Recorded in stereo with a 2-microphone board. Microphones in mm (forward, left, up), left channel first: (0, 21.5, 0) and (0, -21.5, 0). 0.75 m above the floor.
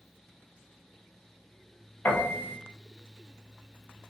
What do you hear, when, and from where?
2.0 s a piano: 50° left (ahead or behind), 0.7 m